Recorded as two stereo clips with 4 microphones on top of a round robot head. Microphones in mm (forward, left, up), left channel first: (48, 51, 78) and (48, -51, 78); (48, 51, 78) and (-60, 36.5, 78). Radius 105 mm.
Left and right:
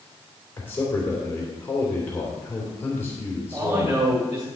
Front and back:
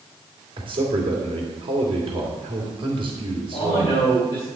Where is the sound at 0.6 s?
160° left, 2.5 m.